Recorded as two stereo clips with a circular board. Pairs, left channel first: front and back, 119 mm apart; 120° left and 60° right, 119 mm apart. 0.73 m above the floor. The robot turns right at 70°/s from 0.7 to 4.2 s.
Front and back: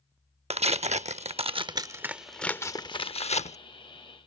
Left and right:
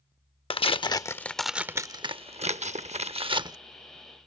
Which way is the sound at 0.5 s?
160° left.